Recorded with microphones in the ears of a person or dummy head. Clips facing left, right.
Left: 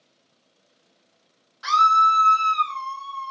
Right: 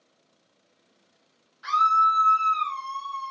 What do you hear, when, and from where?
1.6 s a scream: 55° left (ahead or behind), 0.7 m; by 3.3 s 30° right (ahead or behind), 0.6 m